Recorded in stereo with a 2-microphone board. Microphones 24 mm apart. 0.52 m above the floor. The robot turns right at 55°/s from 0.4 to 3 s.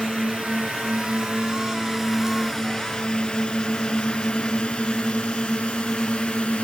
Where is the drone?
70° right (ahead or behind); by 6.7 s 65° left (ahead or behind).